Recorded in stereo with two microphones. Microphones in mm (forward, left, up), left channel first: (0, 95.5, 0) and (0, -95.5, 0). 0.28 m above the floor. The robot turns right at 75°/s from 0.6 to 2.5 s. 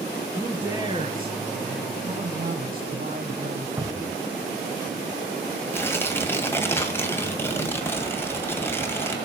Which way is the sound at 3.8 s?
15° right (ahead or behind).